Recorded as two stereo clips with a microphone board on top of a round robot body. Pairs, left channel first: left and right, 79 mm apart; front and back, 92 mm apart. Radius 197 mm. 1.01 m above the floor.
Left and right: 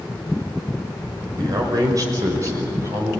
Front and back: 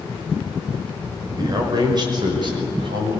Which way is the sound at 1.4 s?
130° right.